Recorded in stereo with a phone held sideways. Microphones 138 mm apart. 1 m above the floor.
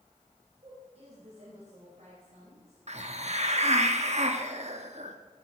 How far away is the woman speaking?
About 5 m.